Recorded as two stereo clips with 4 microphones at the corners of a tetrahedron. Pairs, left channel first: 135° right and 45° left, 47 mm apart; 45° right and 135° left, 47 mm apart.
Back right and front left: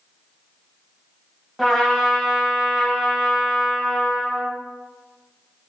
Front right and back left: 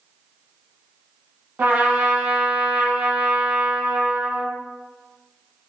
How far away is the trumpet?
About 0.9 m.